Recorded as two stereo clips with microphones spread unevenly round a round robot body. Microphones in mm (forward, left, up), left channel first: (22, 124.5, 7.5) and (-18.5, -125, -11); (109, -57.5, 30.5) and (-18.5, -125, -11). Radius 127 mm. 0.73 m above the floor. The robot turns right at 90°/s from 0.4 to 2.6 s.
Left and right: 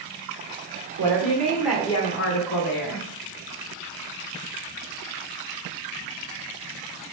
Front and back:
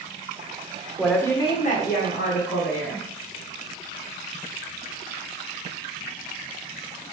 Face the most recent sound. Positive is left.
turn(degrees=70)